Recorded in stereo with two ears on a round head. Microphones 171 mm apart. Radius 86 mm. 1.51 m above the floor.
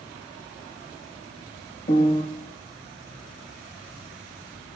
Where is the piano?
45° left (ahead or behind), 2.0 m.